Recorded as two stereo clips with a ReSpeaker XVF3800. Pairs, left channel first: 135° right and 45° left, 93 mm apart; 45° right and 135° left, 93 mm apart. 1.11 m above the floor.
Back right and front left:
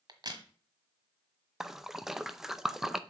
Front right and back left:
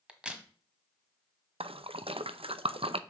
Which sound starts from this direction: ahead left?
A crack, at 0.1 s.